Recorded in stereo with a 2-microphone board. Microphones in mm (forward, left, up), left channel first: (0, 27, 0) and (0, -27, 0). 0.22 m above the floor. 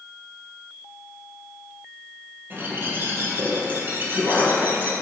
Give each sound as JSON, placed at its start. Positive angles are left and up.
{"t": 2.5, "sound": "a bird", "side_deg": -40, "distance_m": 1.5}